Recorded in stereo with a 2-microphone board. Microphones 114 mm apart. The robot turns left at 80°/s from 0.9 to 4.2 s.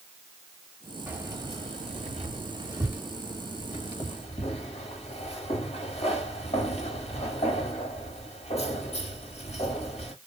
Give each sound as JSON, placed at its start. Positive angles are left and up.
{"t": 1.1, "sound": "keys jangling", "side_deg": -15, "distance_m": 1.6}